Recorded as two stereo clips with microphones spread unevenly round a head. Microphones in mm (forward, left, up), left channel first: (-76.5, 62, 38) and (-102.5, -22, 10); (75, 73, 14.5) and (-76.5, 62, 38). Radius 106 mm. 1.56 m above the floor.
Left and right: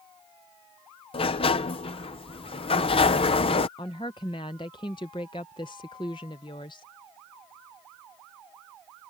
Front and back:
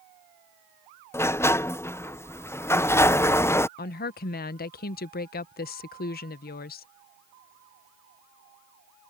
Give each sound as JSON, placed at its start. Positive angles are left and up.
{"t": 1.1, "sound": "a sliding door", "azimuth_deg": 80}
{"t": 3.8, "sound": "a woman speaking", "azimuth_deg": 25}